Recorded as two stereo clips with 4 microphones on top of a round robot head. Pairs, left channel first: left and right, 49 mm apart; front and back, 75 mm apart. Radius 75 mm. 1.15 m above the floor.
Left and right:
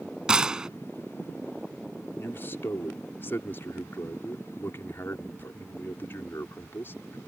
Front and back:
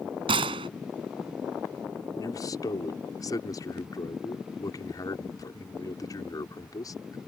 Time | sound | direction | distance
0.3 | a gunshot | 165° right | ?
2.2 | a man speaking | 40° left | ?